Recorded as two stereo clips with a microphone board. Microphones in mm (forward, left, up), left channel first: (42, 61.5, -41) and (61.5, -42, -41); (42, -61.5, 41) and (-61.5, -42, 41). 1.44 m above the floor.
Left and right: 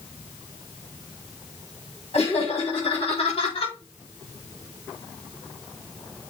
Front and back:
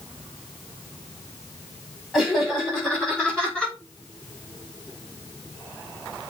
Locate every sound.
2.1 s laughter: 80° left, 5 m; by 3.8 s 70° left, 4.5 m